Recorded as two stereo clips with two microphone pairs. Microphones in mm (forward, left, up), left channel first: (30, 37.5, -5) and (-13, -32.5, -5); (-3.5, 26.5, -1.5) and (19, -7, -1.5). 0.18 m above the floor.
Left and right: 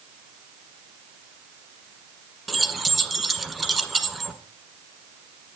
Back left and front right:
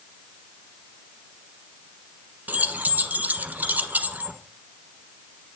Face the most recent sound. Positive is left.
turn(degrees=-30)